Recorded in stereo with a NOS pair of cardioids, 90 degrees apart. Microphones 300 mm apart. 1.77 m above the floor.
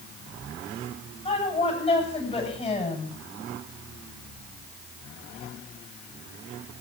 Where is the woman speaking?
20° left, 8.5 m.